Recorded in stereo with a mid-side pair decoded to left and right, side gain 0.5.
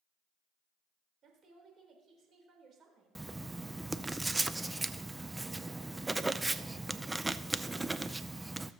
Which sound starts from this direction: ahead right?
A woman speaking, at 1.2 s.